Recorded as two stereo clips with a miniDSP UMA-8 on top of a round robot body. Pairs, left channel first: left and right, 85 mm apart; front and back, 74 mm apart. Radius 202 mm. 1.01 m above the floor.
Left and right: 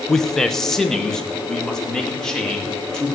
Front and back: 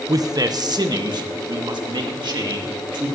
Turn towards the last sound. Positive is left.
turn(degrees=175)